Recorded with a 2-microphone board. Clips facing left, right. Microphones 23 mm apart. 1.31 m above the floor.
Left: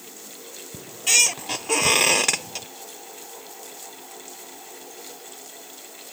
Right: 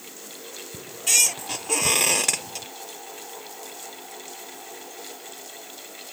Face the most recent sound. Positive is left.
turn(degrees=15)  # may be behind; listen again after turning